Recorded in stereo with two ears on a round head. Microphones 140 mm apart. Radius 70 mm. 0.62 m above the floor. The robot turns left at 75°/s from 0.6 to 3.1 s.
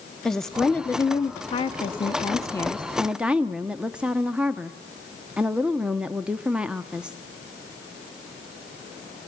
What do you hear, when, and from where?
0.2 s a woman speaking: 175° left, 0.7 m; by 7.2 s 10° right, 0.7 m